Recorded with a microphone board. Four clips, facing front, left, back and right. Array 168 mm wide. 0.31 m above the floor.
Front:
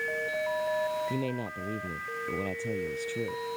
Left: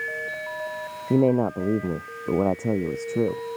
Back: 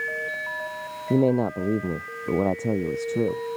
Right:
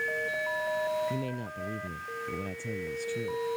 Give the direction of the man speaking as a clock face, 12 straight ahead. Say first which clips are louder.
Left 15 dB, back 12 dB; 8 o'clock.